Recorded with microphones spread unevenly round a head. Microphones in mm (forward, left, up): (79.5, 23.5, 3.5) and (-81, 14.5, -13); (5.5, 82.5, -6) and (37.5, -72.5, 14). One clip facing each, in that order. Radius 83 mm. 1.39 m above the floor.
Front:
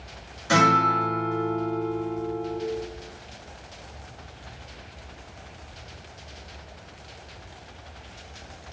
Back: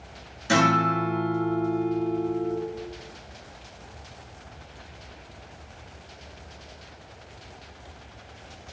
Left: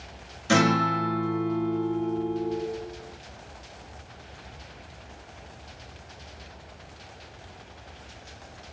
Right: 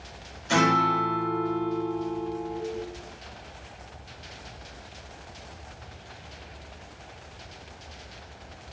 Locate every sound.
0.5 s a guitar: 130° left, 3 m